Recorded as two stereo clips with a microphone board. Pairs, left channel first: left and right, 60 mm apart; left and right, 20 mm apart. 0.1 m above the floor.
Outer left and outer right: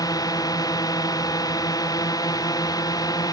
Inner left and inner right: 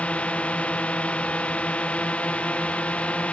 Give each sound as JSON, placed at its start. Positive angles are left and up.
{"t": 0.0, "sound": "a drone", "side_deg": 85}